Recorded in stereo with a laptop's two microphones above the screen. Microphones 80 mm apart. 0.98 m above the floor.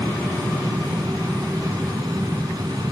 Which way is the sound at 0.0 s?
55° right (ahead or behind).